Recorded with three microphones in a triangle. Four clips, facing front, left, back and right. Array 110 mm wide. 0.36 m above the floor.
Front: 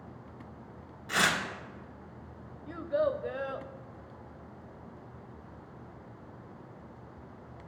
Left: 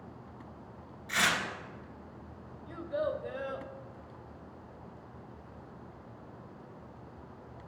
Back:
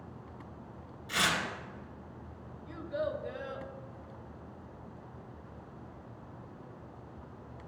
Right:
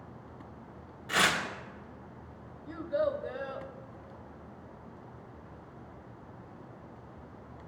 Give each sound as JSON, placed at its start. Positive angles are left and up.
{"t": 1.1, "sound": "tearing paper", "azimuth_deg": -45, "distance_m": 2.0}
{"t": 2.7, "sound": "a child speaking", "azimuth_deg": -10, "distance_m": 0.7}